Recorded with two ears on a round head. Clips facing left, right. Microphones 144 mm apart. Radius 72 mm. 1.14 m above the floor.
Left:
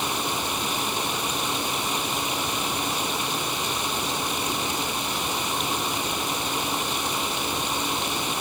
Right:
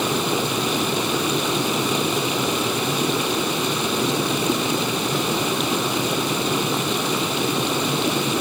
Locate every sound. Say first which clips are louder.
0.0 s running water: right 7 dB; 65° right (ahead or behind)